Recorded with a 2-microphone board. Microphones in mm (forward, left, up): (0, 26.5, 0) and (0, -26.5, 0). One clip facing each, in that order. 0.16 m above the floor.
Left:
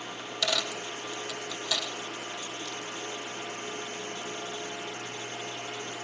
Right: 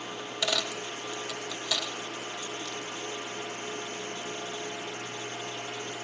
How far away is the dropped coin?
About 1.6 m.